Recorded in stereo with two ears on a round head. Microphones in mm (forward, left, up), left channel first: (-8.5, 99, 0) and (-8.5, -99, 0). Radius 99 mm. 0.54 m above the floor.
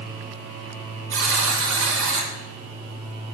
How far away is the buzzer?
About 1.0 m.